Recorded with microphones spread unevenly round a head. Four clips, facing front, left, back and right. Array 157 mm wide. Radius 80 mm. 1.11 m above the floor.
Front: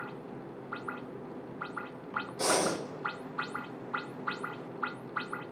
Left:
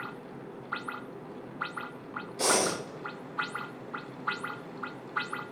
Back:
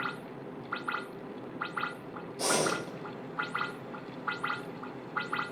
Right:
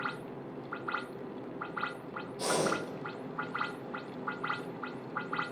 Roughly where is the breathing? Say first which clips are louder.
Left 3 dB, even; left.